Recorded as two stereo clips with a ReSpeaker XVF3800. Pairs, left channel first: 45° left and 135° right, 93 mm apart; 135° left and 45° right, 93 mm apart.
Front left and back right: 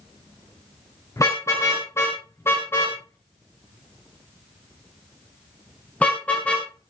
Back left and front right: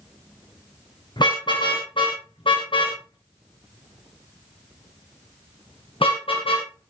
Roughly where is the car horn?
Left.